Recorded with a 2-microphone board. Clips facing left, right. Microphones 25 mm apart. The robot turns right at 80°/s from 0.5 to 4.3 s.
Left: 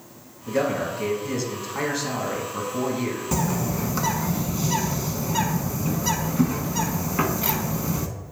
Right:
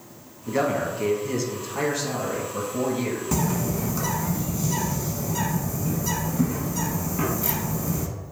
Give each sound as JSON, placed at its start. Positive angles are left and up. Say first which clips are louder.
{"t": 0.5, "sound": "a man speaking", "louder": "even", "side_deg": -15, "distance_m": 1.1}
{"t": 3.3, "sound": "a bird", "louder": "even", "azimuth_deg": 10, "distance_m": 0.7}